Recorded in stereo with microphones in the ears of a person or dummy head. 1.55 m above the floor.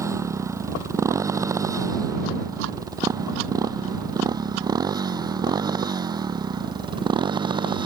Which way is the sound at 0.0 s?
10° right (ahead or behind).